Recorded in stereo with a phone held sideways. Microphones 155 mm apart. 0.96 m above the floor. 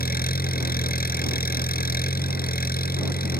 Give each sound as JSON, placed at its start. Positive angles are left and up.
{"t": 0.0, "sound": "an engine running", "side_deg": 85}